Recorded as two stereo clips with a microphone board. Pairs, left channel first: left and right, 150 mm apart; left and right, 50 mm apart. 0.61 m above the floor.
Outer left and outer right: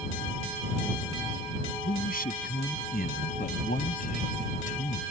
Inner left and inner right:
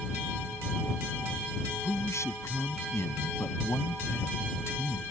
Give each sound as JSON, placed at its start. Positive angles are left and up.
{"t": 1.8, "sound": "a man speaking", "side_deg": 75}